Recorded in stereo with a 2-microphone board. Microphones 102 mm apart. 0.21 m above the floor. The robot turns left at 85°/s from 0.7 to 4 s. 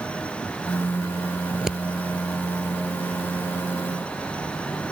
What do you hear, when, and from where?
1.5 s scissors: 20° right (ahead or behind); by 1.8 s 5° left (ahead or behind)